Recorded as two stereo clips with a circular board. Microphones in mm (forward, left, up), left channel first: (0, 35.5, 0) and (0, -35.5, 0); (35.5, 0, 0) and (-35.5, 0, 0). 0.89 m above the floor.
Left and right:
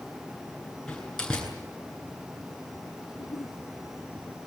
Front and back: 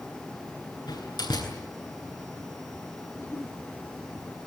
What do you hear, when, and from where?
0.9 s a door slam: 10° left, 9.5 m
3.1 s a giggle: 65° left, 2.5 m